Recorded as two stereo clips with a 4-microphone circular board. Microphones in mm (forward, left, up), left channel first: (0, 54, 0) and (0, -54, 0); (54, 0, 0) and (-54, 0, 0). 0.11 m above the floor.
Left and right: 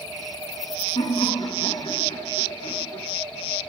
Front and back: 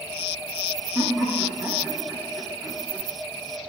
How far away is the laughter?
About 7 m.